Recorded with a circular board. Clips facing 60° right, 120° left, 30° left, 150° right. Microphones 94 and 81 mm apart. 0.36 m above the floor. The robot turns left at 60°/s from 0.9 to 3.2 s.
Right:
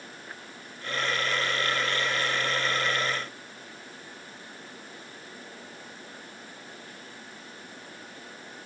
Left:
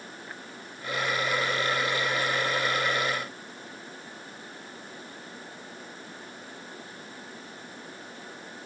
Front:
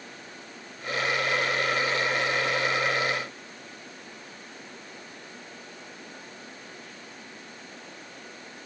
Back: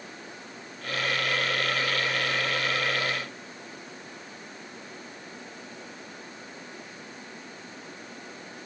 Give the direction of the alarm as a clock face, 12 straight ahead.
I don't hear an alarm.